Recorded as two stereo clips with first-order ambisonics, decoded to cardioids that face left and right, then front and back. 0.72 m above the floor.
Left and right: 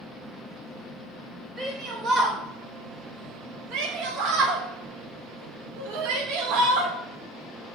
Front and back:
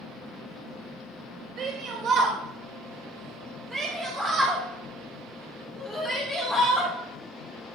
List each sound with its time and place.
1.6 s a shout: 155° right, 1.5 m; by 6.9 s 75° right, 3 m